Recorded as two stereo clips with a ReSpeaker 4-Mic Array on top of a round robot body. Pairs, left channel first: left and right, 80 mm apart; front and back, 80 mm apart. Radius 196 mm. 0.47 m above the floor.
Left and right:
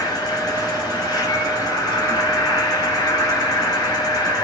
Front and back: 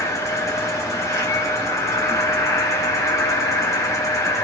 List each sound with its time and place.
0.0 s an insect: 50° left, 0.9 m